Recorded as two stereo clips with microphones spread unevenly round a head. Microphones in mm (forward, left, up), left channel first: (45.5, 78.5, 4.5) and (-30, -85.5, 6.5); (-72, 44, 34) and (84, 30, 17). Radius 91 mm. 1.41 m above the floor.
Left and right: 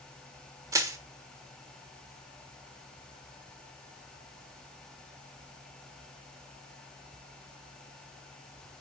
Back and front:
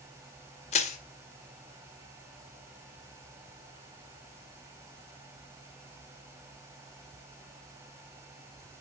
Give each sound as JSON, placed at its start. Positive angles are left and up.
{"t": 0.7, "sound": "crushing", "azimuth_deg": 180, "distance_m": 1.3}